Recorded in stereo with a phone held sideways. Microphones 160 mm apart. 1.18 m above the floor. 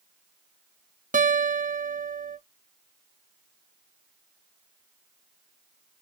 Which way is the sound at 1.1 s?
50° right (ahead or behind).